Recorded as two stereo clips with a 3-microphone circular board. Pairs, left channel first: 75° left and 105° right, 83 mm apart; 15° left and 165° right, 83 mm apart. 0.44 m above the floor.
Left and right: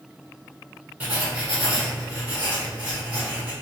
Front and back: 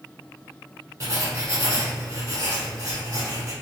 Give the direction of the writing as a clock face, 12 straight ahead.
5 o'clock.